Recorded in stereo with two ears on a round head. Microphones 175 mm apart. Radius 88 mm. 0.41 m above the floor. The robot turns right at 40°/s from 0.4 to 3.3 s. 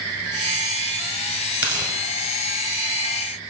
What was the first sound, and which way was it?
Tearing paper, 5° right (ahead or behind).